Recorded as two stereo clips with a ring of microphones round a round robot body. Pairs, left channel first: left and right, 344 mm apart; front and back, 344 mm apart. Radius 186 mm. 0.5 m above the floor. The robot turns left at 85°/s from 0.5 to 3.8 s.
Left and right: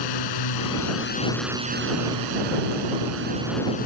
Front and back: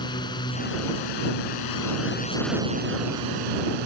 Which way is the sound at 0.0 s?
80° left.